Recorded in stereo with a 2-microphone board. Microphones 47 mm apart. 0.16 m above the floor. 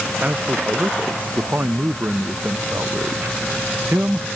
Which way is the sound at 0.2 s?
40° right (ahead or behind).